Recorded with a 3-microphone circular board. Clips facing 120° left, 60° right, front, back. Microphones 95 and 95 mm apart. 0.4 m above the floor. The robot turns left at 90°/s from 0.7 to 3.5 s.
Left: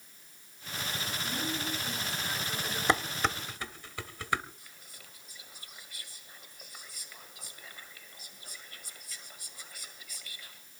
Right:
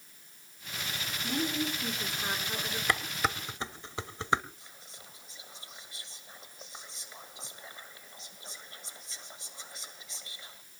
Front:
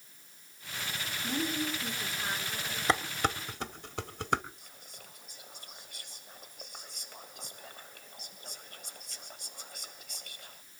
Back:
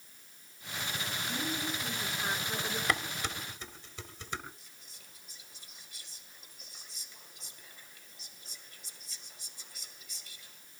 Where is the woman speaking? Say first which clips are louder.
Right 6 dB, front 5 dB; 10° right, 5 m; by 2.8 s 150° right, 5 m.